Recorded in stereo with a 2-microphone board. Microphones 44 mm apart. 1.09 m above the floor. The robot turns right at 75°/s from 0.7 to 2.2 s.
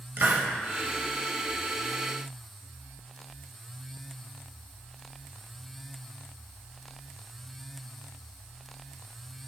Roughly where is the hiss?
Right.